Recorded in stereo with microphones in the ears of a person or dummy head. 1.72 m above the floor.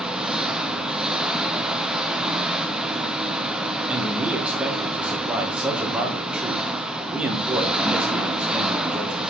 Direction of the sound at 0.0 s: 5° right (ahead or behind).